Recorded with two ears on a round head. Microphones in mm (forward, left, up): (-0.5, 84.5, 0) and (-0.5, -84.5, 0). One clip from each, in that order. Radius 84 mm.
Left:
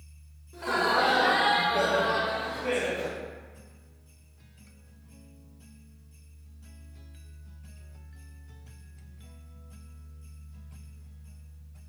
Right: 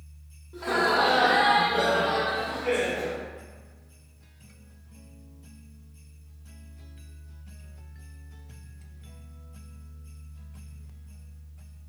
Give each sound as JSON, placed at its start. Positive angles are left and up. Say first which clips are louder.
{"t": 0.5, "sound": "laughter", "louder": "right 2 dB", "side_deg": 10, "distance_m": 0.9}